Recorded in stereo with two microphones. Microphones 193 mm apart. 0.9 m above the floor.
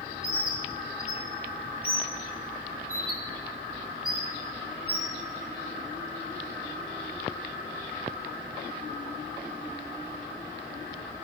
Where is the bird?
50° right (ahead or behind), 1.0 m.